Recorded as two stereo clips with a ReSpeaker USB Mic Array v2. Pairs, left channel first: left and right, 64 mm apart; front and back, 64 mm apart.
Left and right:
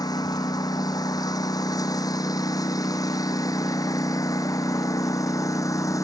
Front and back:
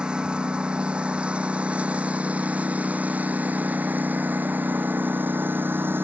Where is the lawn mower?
105° left; by 6.0 s 125° left.